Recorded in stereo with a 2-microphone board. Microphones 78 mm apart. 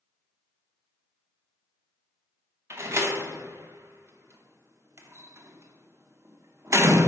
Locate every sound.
2.7 s a door slam: 35° right (ahead or behind), 0.7 m